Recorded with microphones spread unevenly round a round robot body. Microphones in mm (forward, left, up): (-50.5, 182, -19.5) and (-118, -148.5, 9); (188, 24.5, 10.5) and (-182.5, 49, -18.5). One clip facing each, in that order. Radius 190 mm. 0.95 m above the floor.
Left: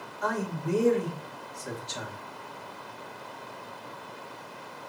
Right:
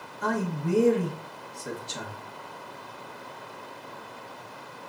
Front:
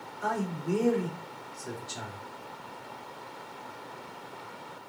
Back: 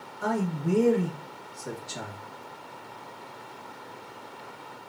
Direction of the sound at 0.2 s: 160° right.